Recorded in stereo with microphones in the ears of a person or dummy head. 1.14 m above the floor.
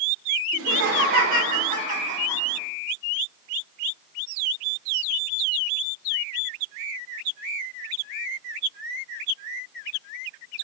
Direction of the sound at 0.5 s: 65° right (ahead or behind).